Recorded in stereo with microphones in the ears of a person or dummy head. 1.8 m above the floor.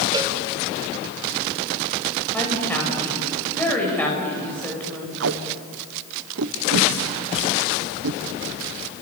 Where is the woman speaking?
10° left (ahead or behind), 9 m.